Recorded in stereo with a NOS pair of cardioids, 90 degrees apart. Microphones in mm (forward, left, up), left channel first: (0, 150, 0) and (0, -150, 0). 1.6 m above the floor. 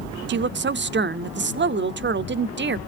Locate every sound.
0.3 s a woman speaking: 40° right, 0.5 m